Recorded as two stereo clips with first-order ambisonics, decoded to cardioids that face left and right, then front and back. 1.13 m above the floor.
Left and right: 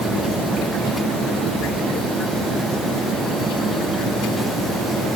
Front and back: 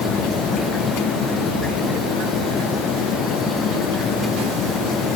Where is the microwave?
I don't hear a microwave.